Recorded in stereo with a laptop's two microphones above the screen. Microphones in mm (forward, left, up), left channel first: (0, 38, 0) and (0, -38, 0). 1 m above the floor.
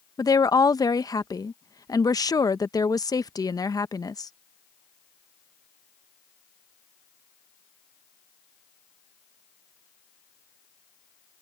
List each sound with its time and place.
0.2 s a woman speaking: 55° left (ahead or behind)